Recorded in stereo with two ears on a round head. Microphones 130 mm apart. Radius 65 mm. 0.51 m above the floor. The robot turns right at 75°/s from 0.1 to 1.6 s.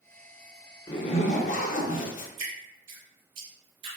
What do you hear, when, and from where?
0.9 s a zipper: 35° left, 0.6 m; by 2.3 s 90° left, 0.6 m
2.4 s dripping: 40° right (ahead or behind), 1.9 m